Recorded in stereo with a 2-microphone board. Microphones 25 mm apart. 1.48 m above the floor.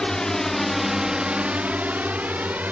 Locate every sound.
0.0 s a drone: 25° left (ahead or behind); by 2.7 s 85° right